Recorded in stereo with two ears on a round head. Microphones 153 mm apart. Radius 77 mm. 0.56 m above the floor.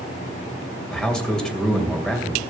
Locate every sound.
0.9 s a man speaking: 5° left (ahead or behind), 2.5 m